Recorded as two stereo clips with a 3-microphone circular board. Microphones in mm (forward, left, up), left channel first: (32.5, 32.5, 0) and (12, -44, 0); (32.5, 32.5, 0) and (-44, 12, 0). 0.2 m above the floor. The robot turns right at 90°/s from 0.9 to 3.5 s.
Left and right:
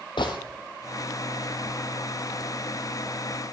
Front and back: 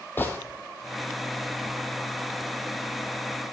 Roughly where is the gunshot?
Left.